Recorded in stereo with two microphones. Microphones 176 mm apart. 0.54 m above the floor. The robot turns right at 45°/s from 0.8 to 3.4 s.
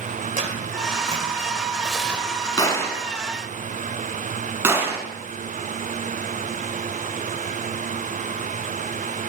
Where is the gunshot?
25° left (ahead or behind), 2 m; by 5.1 s 15° right (ahead or behind), 2 m.